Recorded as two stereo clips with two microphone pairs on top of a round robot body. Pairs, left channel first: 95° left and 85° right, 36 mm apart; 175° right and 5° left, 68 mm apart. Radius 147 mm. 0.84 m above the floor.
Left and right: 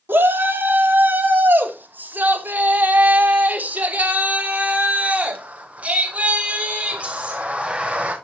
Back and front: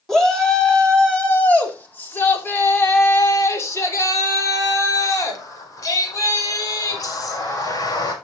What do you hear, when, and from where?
0.1 s a shout: 95° right, 2.5 m; by 8.1 s 145° right, 5.5 m